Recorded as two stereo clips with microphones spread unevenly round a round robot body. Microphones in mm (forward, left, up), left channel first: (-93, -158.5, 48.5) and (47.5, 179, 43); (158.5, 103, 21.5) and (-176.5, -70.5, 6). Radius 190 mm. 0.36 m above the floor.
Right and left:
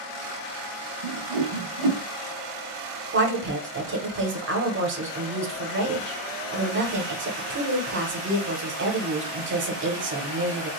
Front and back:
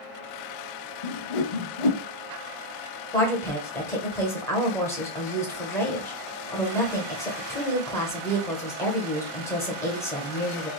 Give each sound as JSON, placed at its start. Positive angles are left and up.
{"t": 1.0, "sound": "a whoosh", "azimuth_deg": 35, "distance_m": 0.6}
{"t": 3.1, "sound": "a woman speaking", "azimuth_deg": 110, "distance_m": 1.1}